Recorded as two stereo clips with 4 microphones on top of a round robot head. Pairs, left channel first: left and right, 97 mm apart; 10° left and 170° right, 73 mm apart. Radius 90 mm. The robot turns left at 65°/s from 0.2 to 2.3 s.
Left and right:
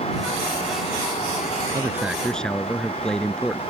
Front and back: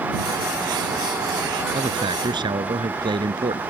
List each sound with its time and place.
1.7 s a man speaking: 150° right; by 3.6 s 175° left